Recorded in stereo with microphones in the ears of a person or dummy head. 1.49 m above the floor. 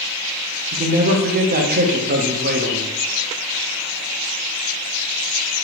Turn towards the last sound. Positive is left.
turn(degrees=-40)  # may be behind; listen again after turning